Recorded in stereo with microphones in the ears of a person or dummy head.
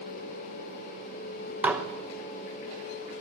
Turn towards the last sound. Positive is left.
turn(degrees=-5)  # may be behind; listen again after turning